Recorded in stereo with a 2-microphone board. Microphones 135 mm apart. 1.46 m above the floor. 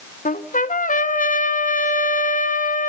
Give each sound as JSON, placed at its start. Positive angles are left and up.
{"t": 0.2, "sound": "a trumpet", "side_deg": 75, "distance_m": 1.2}